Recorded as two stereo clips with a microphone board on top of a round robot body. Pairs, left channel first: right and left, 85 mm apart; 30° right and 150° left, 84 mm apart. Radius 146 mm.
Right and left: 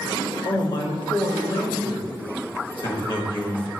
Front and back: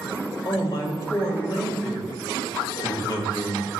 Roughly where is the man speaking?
Right.